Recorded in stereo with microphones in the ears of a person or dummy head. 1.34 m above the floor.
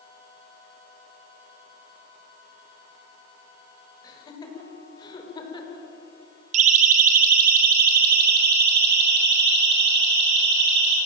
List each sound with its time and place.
4.0 s laughter: 20° left (ahead or behind), 6.5 m; by 5.9 s 25° left (ahead or behind), 4.5 m
6.5 s a siren: 45° right (ahead or behind), 3.5 m; by 11.0 s 70° right (ahead or behind), 7.5 m